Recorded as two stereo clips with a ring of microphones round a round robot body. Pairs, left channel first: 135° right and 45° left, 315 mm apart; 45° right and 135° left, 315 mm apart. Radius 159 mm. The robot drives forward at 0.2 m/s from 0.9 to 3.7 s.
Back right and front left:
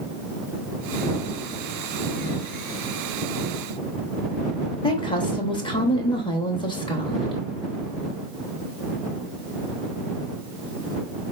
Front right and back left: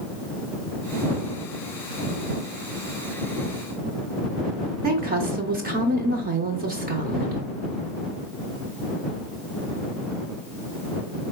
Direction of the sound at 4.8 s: 165° left.